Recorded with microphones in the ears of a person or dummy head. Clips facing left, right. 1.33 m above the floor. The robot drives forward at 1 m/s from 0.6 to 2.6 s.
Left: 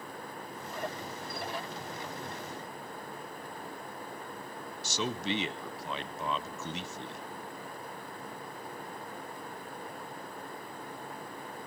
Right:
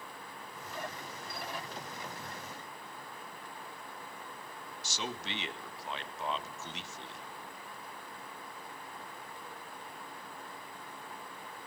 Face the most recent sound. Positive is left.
turn(degrees=75)  # may be behind; listen again after turning